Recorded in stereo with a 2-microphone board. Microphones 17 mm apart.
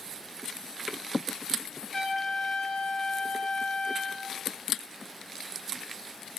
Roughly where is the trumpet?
Left.